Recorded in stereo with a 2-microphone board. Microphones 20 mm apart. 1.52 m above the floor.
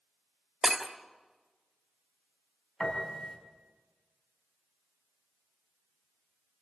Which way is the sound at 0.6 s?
30° right (ahead or behind).